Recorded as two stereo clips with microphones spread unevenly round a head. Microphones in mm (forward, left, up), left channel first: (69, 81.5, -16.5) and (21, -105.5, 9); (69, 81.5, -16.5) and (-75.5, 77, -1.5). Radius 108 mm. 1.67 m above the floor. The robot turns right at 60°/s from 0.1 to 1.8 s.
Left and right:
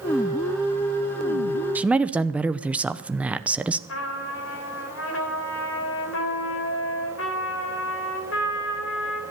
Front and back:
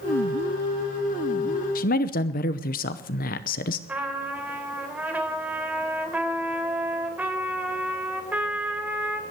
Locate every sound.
1.8 s a man speaking: 30° right, 0.8 m; by 3.8 s 25° right, 0.8 m
3.9 s a trumpet: 105° left, 3 m